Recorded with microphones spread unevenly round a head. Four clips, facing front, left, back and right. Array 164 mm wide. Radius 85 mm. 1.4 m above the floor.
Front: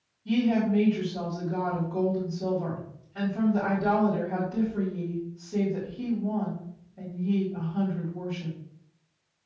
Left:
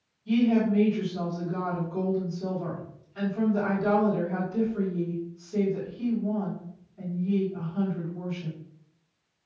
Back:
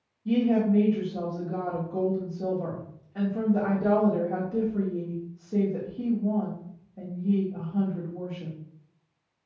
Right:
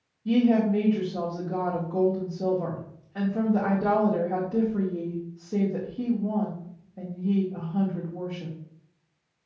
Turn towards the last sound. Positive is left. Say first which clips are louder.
# right 2 dB, back 1 dB
turn(degrees=-115)